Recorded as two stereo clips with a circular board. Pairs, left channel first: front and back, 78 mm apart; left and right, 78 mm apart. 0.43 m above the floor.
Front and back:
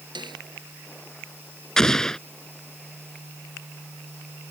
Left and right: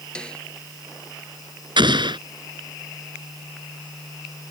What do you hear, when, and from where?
0.1 s a snare drum: 170° left
1.8 s an explosion: 85° right